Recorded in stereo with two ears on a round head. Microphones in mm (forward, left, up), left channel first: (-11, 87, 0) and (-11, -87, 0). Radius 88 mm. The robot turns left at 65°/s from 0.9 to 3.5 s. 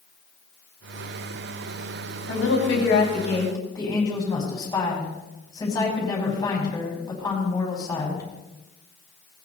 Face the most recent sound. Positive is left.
turn(degrees=20)